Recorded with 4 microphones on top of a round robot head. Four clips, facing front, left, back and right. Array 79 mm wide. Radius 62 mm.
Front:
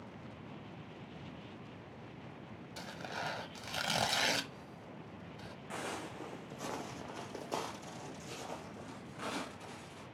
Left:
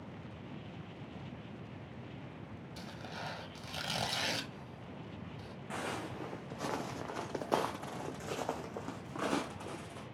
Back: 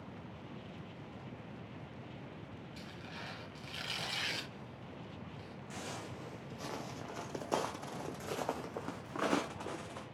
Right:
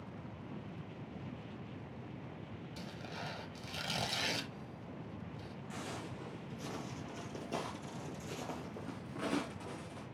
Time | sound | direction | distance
2.8 | tearing paper | 10° left | 1.1 m
5.7 | footsteps | 55° left | 2.0 m